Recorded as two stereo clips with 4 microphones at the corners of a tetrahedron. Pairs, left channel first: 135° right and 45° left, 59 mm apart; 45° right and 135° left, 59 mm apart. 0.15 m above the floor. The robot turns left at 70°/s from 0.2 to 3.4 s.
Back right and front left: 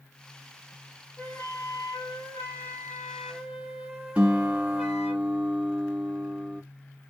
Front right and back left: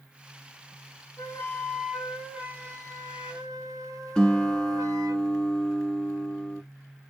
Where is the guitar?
10° left, 1.7 m.